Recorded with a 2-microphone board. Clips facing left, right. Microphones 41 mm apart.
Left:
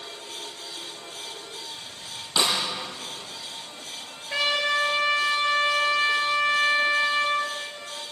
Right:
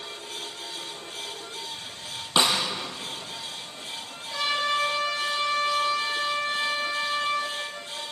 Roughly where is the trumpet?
Left.